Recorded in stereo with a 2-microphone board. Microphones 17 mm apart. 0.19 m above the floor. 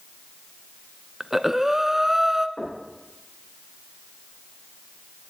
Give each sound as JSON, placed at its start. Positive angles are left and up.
{"t": 1.2, "sound": "breathing", "side_deg": -20, "distance_m": 0.5}
{"t": 2.6, "sound": "knocking", "side_deg": 65, "distance_m": 6.5}